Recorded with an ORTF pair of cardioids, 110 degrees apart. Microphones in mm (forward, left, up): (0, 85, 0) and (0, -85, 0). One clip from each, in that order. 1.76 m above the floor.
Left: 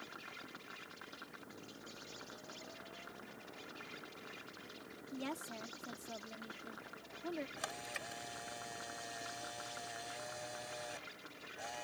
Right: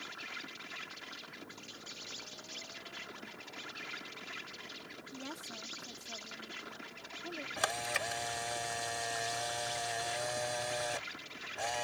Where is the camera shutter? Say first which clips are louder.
Right 10 dB; 60° right.